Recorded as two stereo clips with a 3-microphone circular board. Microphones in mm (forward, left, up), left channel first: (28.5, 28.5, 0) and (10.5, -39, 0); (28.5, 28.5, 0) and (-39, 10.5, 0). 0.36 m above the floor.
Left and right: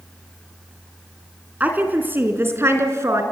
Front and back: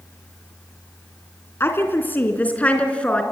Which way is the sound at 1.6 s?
40° right.